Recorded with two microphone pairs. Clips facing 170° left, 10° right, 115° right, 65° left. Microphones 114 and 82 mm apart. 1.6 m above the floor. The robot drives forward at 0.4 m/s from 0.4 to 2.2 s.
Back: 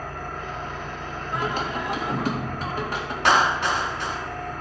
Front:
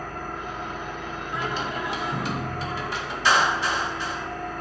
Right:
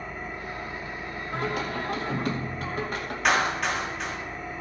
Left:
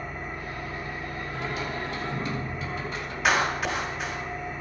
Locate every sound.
0.0 s an engine running: 105° left, 6.5 m; by 4.6 s 115° left, 7 m
1.3 s singing: 150° right, 2.0 m; by 3.1 s 155° right, 2.5 m
3.2 s a clap: 150° left, 2.5 m